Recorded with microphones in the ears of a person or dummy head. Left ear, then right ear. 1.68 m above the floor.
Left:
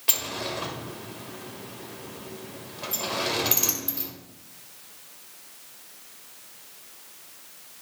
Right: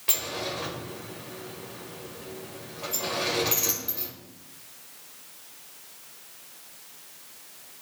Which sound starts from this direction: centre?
A sliding door, at 0.1 s.